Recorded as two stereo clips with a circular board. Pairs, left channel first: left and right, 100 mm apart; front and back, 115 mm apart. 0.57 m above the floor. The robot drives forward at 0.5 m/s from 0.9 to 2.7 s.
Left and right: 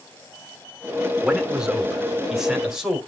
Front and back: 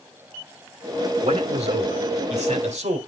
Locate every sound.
1.2 s a man speaking: 170° right, 1.3 m; by 3.0 s 175° right, 2.0 m